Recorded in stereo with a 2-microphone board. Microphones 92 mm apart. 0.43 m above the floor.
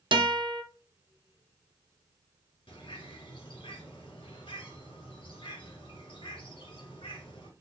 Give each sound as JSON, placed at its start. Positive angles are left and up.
{"t": 0.1, "sound": "a guitar", "side_deg": -60, "distance_m": 0.6}
{"t": 2.7, "sound": "a bird", "side_deg": 70, "distance_m": 1.4}